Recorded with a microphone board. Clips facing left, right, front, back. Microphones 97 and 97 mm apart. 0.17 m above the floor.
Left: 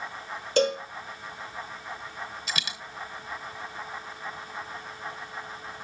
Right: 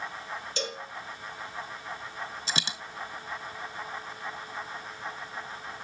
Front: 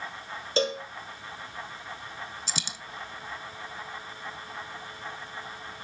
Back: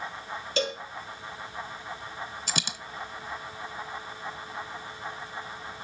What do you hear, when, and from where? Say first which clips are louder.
0.6 s a cowbell: left 14 dB, front 3 dB; 55° left, 1.4 m
2.5 s a dropped coin: right 2 dB, back 4 dB; 150° right, 0.7 m